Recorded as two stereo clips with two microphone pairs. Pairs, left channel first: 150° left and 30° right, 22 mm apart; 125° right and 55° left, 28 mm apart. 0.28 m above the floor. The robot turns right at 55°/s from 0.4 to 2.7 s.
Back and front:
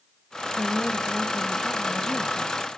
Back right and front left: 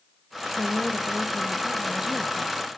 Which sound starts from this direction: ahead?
A woman speaking, at 0.6 s.